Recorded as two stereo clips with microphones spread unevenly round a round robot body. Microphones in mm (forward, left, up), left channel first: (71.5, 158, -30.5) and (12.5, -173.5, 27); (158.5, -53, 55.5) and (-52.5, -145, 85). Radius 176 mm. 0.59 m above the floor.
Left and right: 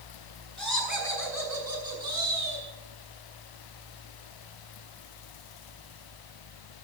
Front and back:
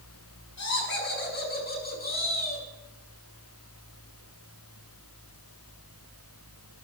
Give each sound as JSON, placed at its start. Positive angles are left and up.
{"t": 0.6, "sound": "laughter", "azimuth_deg": -10, "distance_m": 6.0}